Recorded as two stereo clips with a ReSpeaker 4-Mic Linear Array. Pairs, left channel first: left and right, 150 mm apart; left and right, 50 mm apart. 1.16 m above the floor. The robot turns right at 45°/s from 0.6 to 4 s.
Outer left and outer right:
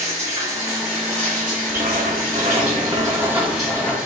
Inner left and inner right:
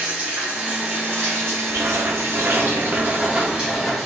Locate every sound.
0.0 s running water: 160° right, 2.5 m; by 4.1 s 5° right, 2.5 m
1.7 s writing: 90° right, 0.8 m; by 4.0 s 15° left, 0.8 m